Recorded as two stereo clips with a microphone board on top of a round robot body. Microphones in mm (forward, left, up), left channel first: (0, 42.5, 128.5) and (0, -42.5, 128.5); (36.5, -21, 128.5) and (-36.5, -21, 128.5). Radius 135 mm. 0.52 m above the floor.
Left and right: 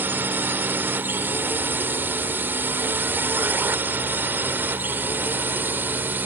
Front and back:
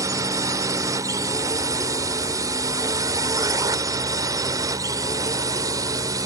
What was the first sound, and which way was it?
A drone, 155° right.